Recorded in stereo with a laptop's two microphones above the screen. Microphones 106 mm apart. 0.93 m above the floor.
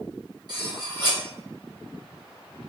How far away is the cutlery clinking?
About 0.8 m.